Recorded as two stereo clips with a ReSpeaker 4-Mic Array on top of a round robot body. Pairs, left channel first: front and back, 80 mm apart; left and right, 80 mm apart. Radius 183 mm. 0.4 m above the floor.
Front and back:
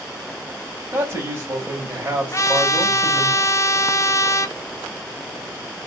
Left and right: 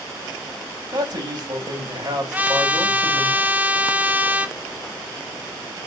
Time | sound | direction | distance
0.9 | a man speaking | 120° right | 3.5 m
2.3 | a trumpet | 30° right | 1.1 m